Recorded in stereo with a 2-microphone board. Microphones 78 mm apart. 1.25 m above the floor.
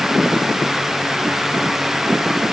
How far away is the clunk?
No clunk in this recording.